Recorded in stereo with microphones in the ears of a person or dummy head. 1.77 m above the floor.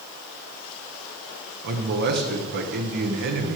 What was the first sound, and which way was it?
A man speaking, 50° right (ahead or behind).